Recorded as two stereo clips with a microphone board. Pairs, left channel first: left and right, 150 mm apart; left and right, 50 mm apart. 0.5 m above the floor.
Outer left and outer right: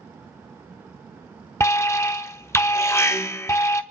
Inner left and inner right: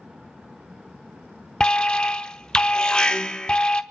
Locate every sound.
1.6 s an alarm: 20° left (ahead or behind), 0.7 m